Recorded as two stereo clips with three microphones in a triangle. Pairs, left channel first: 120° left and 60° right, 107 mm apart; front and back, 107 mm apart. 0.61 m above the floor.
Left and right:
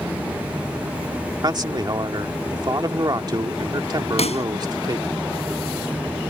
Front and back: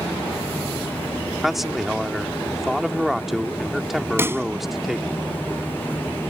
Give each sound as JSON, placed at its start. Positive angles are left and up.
{"t": 1.4, "sound": "a man speaking", "azimuth_deg": -95}
{"t": 4.2, "sound": "a pop", "azimuth_deg": 110}